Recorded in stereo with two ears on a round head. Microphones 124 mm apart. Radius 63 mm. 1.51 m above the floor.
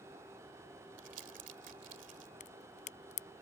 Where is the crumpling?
55° right (ahead or behind).